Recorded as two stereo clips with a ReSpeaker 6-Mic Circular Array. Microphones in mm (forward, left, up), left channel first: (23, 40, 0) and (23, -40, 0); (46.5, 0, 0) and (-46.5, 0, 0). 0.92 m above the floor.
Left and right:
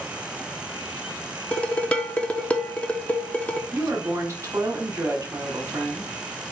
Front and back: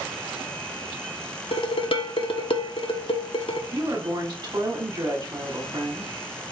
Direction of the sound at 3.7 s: 145° right.